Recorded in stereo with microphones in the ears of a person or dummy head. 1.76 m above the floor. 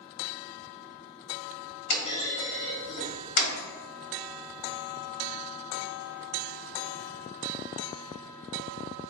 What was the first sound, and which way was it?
A clunk, 55° left (ahead or behind).